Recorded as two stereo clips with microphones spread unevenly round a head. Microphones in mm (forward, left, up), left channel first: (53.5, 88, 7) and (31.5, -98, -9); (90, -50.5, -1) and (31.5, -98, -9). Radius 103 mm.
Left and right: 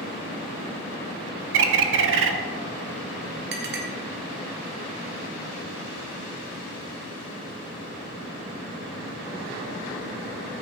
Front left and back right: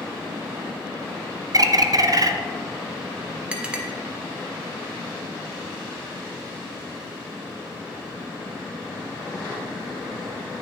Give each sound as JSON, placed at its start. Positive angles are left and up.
{"t": 1.5, "sound": "a bird", "azimuth_deg": -105, "distance_m": 0.8}
{"t": 3.5, "sound": "a clink", "azimuth_deg": -65, "distance_m": 1.6}